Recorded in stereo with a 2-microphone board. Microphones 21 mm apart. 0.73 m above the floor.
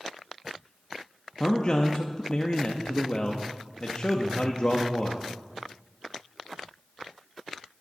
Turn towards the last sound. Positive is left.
turn(degrees=45)  # may be behind; listen again after turning